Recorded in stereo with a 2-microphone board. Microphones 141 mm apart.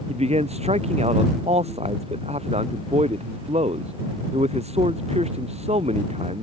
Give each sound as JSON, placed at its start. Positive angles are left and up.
{"t": 0.1, "sound": "a man speaking", "side_deg": -50}